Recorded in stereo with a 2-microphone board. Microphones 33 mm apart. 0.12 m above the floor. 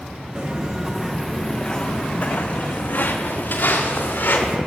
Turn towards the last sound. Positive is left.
turn(degrees=80)